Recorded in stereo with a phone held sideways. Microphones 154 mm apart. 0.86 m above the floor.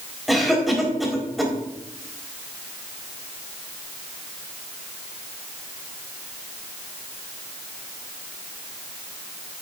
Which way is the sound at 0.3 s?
Centre (ahead or behind).